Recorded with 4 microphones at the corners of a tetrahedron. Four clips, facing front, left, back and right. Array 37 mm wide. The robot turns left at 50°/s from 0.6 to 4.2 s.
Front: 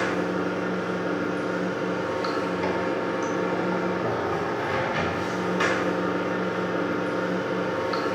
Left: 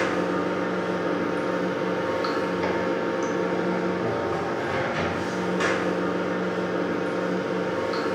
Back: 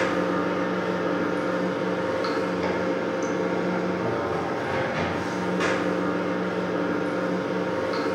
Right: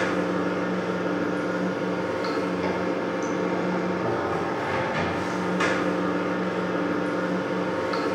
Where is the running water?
175° left, 0.8 m; by 8.2 s 5° right, 0.8 m.